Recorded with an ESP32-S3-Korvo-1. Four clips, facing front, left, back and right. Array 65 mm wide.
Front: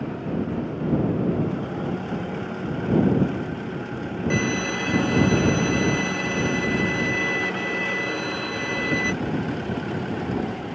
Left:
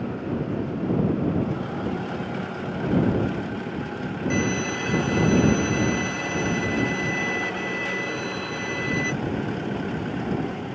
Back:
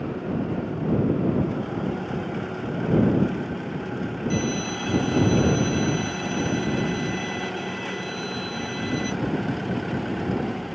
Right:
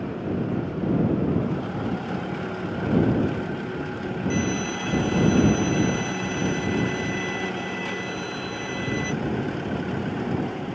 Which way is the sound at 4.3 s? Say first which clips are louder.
Left 2 dB, front 4 dB; 25° left.